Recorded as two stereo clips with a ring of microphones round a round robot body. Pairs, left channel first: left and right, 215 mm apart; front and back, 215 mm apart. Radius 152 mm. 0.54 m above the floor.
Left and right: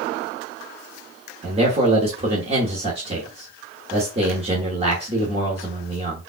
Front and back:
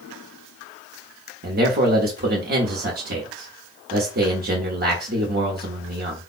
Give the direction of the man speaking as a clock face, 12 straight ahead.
5 o'clock.